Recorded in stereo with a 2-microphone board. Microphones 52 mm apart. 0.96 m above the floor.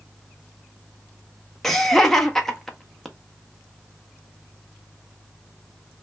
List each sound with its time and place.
1.6 s laughter: 5° left (ahead or behind), 0.5 m